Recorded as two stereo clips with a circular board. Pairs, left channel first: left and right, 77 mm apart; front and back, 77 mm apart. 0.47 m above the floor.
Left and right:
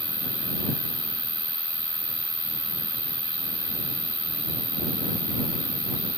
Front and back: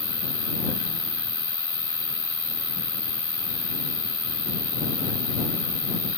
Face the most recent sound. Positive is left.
turn(degrees=-105)